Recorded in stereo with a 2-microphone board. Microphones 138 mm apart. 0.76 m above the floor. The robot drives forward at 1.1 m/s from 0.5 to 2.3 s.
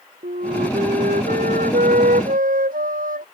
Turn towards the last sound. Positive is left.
turn(degrees=-90)